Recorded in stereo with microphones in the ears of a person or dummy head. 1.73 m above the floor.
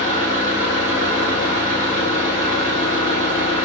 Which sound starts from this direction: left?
An engine running, at 0.0 s.